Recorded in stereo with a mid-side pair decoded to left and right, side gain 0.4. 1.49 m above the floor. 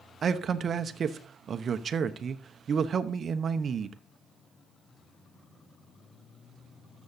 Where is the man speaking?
55° right, 0.9 m.